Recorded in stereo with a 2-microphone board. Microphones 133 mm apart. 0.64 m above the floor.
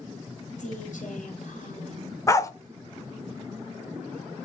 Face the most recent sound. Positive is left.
turn(degrees=25)  # may be behind; listen again after turning